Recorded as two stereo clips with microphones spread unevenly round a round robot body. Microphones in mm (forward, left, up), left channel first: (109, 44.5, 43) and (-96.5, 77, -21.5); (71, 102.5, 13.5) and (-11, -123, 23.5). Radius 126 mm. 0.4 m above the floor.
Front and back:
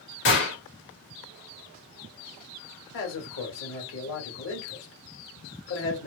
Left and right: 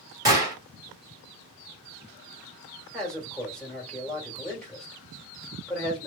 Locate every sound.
0.2 s a gunshot: 45° right, 1.4 m
2.9 s a man speaking: 15° right, 1.4 m